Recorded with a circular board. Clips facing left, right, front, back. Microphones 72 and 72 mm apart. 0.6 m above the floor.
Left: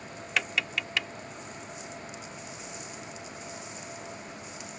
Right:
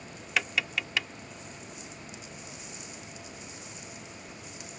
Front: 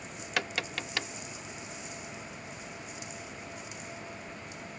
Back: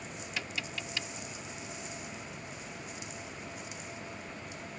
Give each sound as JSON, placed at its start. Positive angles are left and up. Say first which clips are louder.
{"t": 0.4, "sound": "tapping", "louder": "even, front 7 dB", "azimuth_deg": 0}